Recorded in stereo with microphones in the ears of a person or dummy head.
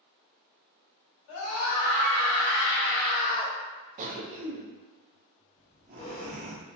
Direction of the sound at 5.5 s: 30° left (ahead or behind).